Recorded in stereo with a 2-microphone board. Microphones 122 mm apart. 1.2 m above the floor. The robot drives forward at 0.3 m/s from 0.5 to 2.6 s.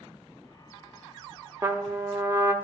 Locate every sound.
1.6 s a trumpet: 25° right (ahead or behind), 0.9 m